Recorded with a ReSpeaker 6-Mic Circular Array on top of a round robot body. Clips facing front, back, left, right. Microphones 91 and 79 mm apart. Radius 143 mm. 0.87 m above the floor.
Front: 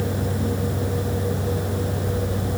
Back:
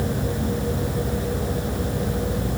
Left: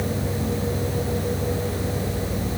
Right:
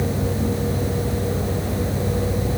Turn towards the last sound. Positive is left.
No sound to turn to.